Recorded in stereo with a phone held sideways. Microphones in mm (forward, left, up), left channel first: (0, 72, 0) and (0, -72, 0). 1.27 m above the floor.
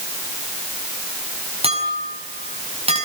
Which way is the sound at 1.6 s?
45° right (ahead or behind).